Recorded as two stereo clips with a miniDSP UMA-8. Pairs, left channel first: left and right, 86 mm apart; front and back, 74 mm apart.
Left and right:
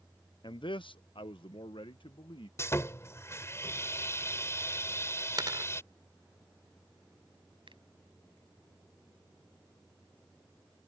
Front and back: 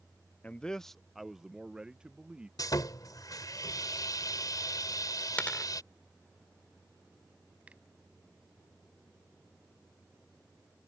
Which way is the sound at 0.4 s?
70° left.